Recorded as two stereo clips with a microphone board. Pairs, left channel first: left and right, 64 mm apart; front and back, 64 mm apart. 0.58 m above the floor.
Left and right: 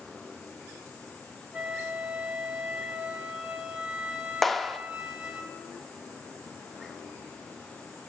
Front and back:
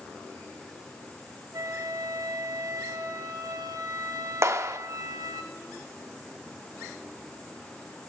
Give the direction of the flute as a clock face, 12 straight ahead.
6 o'clock.